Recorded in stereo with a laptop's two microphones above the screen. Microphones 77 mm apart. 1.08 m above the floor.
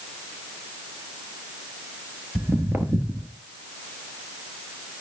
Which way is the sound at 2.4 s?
25° right (ahead or behind).